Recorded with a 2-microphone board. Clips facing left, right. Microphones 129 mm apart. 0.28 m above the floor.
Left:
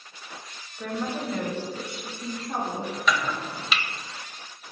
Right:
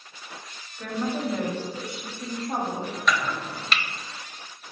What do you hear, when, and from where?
0.8 s a woman speaking: 15° left (ahead or behind), 0.9 m; by 3.0 s 40° right (ahead or behind), 1.6 m
3.1 s chopping: 5° left (ahead or behind), 0.5 m